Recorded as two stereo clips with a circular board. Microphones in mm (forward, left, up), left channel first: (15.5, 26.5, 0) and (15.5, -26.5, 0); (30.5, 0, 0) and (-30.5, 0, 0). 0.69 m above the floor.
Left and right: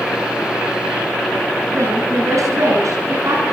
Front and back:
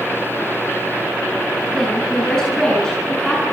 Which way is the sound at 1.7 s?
80° right.